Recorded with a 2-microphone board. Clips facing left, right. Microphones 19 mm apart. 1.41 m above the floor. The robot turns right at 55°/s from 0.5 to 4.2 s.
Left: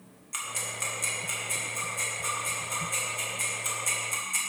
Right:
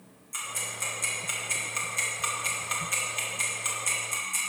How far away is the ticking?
About 1.9 m.